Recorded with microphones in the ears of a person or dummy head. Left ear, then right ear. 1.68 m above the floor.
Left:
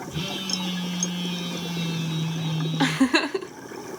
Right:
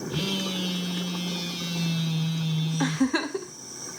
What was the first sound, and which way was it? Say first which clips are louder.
A phone buzzing: even; 60° right (ahead or behind).